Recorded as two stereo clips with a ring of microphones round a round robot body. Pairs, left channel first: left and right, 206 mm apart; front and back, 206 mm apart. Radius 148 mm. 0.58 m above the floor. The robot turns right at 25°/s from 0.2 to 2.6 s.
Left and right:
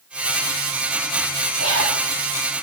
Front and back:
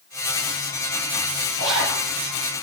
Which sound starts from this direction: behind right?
A zipper, at 1.6 s.